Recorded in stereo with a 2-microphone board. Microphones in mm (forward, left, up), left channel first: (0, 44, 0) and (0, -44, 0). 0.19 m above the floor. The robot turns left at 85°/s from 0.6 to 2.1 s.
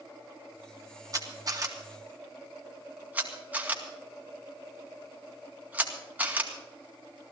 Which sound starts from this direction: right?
A camera shutter, at 1.1 s.